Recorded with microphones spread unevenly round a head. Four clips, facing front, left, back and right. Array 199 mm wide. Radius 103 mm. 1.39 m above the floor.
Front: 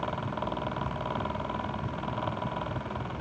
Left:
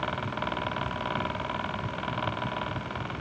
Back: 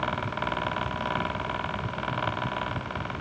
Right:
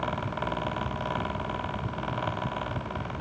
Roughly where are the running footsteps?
No running footsteps in this recording.